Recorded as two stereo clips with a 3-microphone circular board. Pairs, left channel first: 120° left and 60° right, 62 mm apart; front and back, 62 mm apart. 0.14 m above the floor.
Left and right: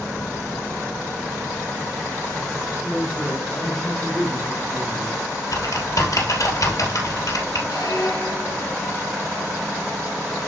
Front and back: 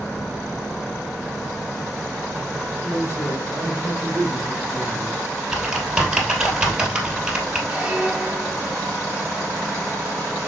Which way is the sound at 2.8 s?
15° left.